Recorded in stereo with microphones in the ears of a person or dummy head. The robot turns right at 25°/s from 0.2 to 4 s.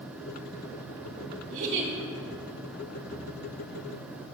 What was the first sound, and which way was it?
A giggle, 45° right (ahead or behind).